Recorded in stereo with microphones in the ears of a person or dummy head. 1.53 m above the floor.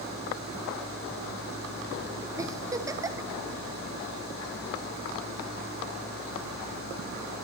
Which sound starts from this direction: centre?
A giggle, at 2.4 s.